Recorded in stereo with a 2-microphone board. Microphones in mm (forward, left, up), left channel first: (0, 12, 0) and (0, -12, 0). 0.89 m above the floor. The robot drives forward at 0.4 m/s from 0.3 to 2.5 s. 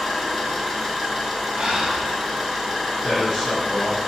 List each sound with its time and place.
0.0 s an engine running: 15° left (ahead or behind), 1.1 m; by 4.1 s 10° left (ahead or behind), 2.0 m
1.6 s breathing: 65° right (ahead or behind), 0.6 m; by 2.1 s 55° right (ahead or behind), 0.7 m
3.0 s a man speaking: 15° left (ahead or behind), 1.4 m